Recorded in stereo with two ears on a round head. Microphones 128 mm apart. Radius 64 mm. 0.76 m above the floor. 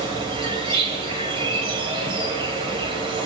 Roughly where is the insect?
Right.